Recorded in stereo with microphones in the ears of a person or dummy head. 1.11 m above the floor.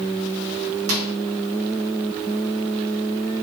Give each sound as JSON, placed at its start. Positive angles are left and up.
{"t": 0.9, "sound": "a microwave", "side_deg": -75, "distance_m": 2.0}